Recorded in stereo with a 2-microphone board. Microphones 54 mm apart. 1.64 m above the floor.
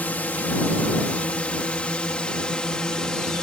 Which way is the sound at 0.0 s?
30° left (ahead or behind).